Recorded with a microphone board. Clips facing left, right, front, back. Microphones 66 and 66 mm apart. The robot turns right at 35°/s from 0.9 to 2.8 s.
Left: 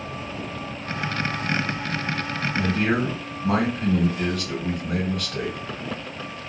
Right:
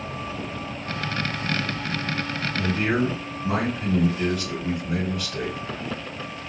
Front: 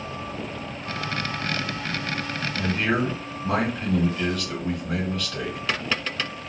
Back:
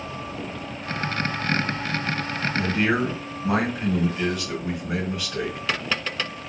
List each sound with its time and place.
2.5 s a man speaking: 100° left, 1.4 m; by 5.6 s 105° left, 1.4 m